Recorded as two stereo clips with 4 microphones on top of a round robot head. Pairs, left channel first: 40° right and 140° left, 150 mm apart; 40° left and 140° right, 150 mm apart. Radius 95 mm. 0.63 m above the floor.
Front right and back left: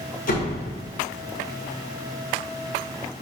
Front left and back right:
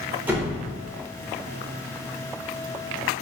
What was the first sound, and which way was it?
A door slam, 65° right.